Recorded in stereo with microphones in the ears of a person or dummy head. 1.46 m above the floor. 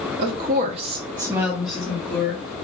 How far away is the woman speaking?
About 0.7 m.